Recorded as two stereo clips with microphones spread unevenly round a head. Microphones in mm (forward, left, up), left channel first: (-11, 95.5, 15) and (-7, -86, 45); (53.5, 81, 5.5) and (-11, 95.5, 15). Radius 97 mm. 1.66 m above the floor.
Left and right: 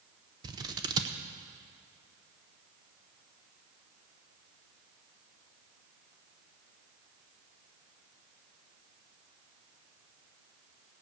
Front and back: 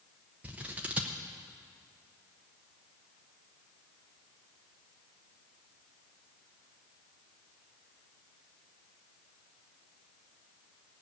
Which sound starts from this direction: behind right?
Scissors, at 0.4 s.